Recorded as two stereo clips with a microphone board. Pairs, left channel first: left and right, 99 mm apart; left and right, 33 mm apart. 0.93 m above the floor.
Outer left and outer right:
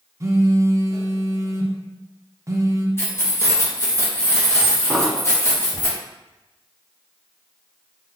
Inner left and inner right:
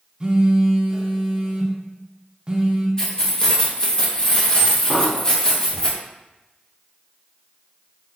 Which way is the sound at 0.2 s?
30° right (ahead or behind).